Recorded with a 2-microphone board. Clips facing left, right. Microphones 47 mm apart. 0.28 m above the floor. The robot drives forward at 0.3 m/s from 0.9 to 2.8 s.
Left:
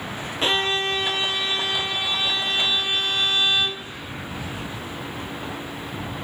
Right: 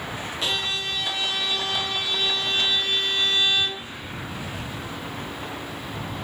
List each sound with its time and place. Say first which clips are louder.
0.4 s a violin: left 6 dB; 40° left (ahead or behind), 0.6 m; by 3.8 s 20° left (ahead or behind), 1.1 m